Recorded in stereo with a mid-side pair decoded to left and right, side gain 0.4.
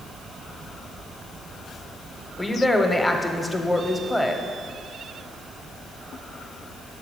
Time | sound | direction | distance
2.4 | a woman speaking | 15° left | 0.8 m